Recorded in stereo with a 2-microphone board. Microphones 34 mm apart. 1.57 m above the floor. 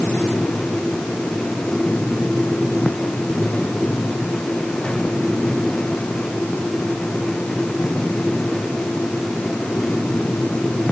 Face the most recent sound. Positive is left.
No sound to turn to.